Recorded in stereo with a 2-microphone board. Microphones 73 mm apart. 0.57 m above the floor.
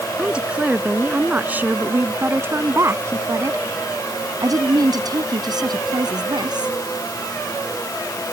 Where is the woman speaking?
15° right (ahead or behind); by 6.8 s 80° right.